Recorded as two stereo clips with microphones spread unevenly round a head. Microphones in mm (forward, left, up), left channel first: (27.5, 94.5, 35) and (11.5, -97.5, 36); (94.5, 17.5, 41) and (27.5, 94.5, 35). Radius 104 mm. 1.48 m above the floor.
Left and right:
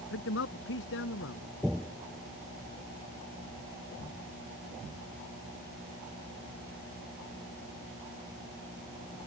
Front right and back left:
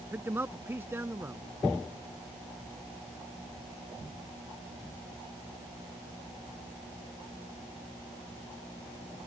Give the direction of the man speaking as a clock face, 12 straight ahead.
10 o'clock.